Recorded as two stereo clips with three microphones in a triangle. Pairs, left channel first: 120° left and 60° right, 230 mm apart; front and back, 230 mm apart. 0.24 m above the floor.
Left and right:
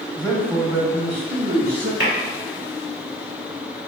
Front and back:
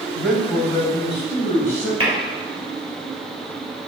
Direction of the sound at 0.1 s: 95° left.